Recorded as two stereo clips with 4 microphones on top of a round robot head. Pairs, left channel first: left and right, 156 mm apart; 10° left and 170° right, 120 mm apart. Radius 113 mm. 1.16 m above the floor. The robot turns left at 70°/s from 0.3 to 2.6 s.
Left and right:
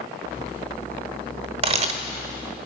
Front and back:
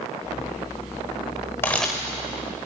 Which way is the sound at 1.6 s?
65° right.